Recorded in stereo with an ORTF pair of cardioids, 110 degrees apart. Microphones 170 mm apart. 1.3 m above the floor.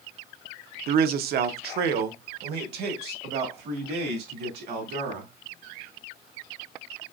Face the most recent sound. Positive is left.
turn(degrees=-75)